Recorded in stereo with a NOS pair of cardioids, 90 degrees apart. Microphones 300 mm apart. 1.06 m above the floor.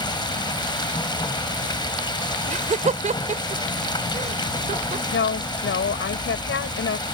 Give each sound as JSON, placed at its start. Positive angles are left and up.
{"t": 0.0, "sound": "running water", "azimuth_deg": 15}
{"t": 2.5, "sound": "laughter", "azimuth_deg": -25}
{"t": 5.1, "sound": "a woman speaking", "azimuth_deg": 45}